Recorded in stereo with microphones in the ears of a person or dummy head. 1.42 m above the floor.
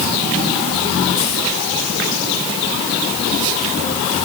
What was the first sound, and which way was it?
Only background noise.